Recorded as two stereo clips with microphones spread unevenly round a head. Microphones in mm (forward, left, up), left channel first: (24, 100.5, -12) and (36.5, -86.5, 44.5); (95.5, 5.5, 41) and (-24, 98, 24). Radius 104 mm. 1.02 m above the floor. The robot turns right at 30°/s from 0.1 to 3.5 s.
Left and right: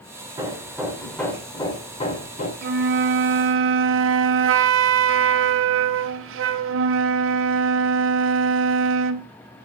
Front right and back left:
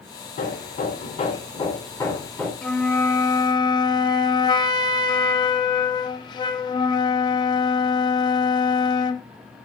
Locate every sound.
0.4 s hammering: 20° right, 1.9 m; by 2.5 s 45° left, 1.9 m
2.6 s a flute: 125° right, 0.5 m; by 9.3 s 100° right, 0.5 m